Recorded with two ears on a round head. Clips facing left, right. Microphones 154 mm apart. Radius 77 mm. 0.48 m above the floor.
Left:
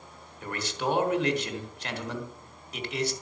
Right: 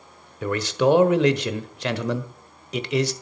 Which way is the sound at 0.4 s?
60° right (ahead or behind).